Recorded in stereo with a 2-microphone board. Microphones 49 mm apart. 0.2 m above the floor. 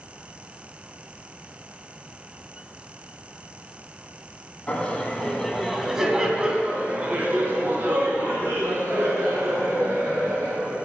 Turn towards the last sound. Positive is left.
turn(degrees=-65)  # may be behind; listen again after turning